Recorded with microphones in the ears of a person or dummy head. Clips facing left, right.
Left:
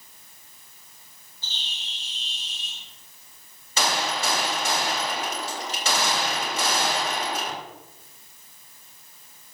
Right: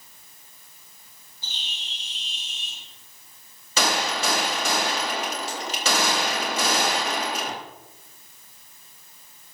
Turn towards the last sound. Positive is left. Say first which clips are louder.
# right 1 dB
turn(degrees=-60)  # may be behind; listen again after turning